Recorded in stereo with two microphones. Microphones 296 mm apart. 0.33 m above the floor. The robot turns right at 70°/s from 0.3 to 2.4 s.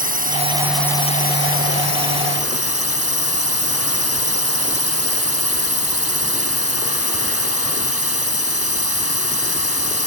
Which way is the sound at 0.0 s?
30° right.